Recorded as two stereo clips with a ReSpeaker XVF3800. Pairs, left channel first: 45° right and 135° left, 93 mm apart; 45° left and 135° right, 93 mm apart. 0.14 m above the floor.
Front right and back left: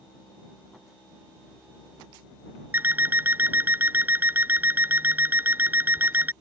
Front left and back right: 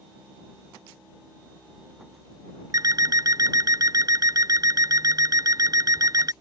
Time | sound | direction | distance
2.7 | an alarm clock | 165° right | ?